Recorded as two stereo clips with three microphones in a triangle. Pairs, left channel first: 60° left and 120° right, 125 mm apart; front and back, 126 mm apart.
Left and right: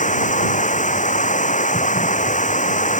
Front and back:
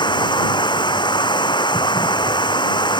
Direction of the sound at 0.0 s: 55° left.